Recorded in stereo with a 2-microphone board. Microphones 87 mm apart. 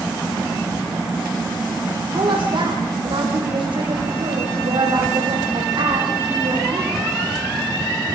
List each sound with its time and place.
2.1 s a woman speaking: 70° right (ahead or behind), 6 m